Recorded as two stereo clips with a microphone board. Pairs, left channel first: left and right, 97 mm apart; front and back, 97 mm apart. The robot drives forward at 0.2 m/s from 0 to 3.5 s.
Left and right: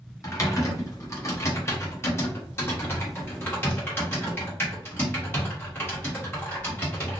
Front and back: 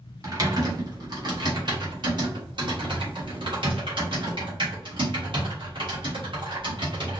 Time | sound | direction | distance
0.2 | typing on a keyboard | 135° left | 1.1 m